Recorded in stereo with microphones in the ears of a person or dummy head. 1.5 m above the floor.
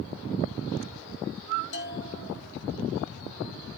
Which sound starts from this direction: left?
A bell, at 1.7 s.